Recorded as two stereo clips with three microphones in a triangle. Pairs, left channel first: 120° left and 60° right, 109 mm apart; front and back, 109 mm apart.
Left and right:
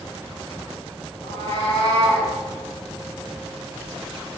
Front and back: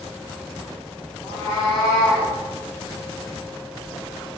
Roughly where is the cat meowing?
Left.